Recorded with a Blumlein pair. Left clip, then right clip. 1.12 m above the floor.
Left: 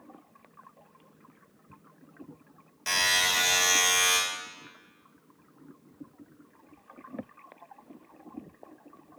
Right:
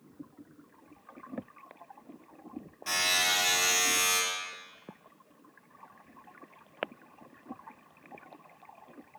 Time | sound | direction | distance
2.9 | a buzzer | 60° left | 1.4 m